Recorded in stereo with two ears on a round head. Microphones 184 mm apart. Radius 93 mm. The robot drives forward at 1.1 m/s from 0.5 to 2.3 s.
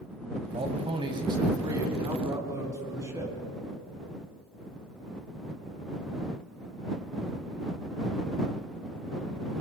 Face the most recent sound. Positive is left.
turn(degrees=-15)  # may be behind; listen again after turning